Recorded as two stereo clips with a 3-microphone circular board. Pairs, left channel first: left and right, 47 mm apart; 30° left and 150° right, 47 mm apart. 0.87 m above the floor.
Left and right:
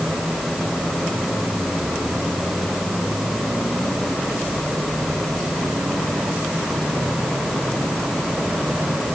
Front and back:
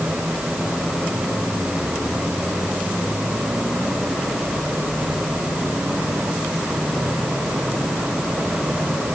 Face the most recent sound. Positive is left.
No sound to turn to.